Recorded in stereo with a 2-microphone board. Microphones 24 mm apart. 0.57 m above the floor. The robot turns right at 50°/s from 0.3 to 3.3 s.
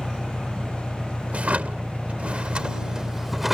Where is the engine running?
160° left; by 3.5 s 50° right.